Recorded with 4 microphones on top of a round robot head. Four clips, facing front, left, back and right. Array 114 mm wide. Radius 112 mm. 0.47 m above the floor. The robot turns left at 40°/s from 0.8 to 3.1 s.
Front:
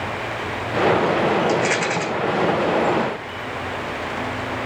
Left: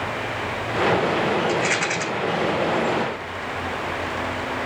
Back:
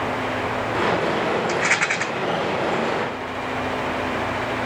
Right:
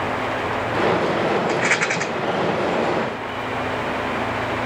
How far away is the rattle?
About 0.8 m.